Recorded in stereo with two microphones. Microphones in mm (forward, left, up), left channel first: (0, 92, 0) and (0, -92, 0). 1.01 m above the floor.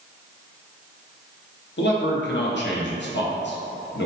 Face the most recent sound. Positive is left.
turn(degrees=65)  # may be behind; listen again after turning